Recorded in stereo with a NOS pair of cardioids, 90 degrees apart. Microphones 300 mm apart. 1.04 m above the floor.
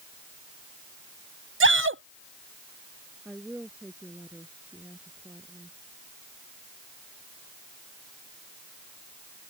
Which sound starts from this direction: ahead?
A woman speaking, at 3.2 s.